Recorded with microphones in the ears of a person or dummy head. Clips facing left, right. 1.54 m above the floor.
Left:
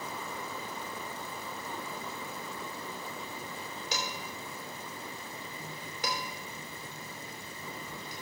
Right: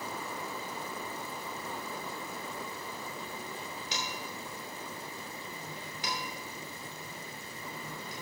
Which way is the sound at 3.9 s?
40° left (ahead or behind).